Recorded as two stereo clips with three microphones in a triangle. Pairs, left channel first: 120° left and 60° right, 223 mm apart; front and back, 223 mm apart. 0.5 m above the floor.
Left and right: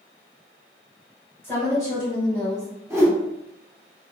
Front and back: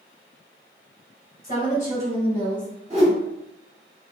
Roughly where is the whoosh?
Behind right.